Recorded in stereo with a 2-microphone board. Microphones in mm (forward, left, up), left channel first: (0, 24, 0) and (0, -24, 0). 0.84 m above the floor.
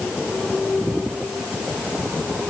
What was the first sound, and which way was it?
Only background noise.